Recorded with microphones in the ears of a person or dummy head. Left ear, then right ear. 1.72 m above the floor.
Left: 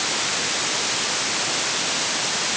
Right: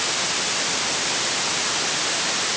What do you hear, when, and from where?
Only background noise.